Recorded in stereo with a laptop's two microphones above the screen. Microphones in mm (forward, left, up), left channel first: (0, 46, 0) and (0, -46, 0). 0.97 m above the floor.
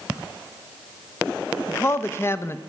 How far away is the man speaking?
About 0.6 m.